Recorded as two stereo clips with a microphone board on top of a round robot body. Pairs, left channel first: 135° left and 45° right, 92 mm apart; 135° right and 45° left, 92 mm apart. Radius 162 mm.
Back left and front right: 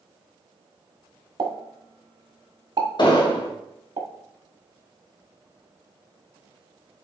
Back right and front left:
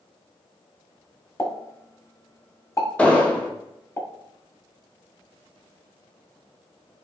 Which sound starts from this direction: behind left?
An explosion, at 3.0 s.